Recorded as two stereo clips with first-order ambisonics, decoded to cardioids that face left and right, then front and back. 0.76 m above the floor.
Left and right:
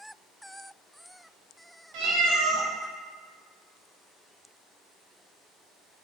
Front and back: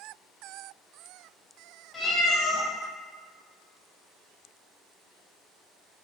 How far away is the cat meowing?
About 0.7 m.